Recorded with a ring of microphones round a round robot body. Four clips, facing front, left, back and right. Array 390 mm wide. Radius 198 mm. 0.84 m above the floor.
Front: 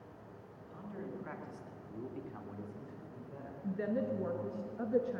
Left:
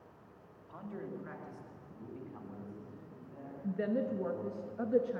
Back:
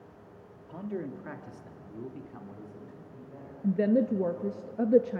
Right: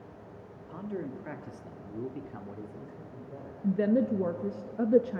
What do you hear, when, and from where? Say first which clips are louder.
0.7 s a man speaking: right 6 dB, back 9 dB; 150° right, 2.5 m; by 4.6 s 60° right, 6 m
3.6 s a woman speaking: right 8 dB, back 10 dB; 140° right, 0.9 m